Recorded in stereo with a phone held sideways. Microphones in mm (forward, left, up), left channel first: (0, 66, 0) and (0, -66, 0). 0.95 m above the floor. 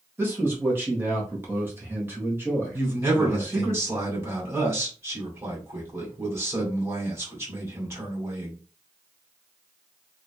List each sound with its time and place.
0.2 s a man speaking: 15° right (ahead or behind), 1.5 m
2.7 s a man speaking: 20° right (ahead or behind), 2 m